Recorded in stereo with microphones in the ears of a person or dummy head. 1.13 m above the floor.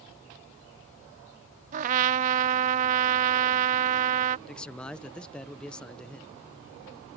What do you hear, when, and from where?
1.7 s a trumpet: 40° right (ahead or behind)
4.5 s a man speaking: centre (ahead or behind)